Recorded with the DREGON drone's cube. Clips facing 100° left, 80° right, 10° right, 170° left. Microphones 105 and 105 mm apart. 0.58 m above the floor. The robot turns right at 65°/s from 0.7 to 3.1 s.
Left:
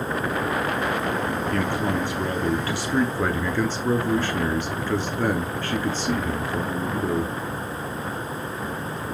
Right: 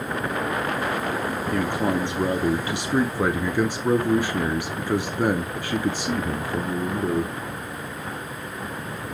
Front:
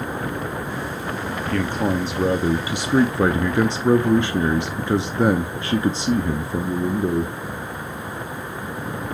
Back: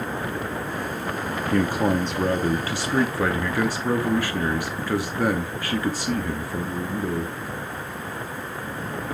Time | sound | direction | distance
1.5 | a man speaking | 130° right | 0.6 m